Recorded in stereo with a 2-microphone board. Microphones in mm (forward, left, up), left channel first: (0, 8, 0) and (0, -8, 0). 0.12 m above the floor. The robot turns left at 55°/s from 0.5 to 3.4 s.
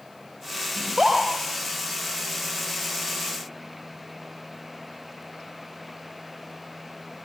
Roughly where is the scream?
Right.